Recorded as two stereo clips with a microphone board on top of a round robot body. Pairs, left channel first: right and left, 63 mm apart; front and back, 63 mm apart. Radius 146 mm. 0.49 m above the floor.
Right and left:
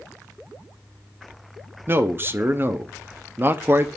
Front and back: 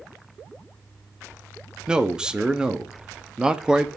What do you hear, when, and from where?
1.9 s a man speaking: 110° left, 1.3 m